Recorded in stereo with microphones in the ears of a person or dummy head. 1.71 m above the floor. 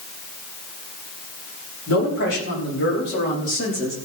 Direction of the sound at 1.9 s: 80° left.